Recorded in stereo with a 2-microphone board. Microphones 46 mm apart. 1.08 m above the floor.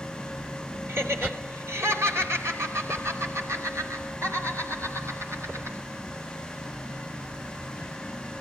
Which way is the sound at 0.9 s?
65° right (ahead or behind).